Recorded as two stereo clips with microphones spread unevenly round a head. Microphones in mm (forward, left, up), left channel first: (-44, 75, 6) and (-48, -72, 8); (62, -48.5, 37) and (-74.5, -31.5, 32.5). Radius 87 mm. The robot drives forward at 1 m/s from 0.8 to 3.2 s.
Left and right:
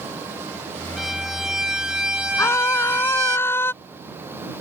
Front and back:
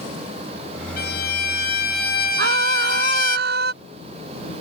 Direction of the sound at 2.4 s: 160° left.